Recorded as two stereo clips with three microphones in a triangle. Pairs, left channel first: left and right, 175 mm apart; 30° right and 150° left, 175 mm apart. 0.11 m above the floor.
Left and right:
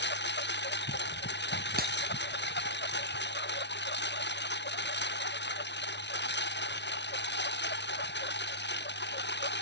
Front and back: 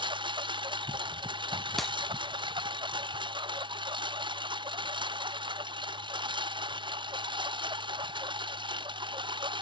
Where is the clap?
120° right.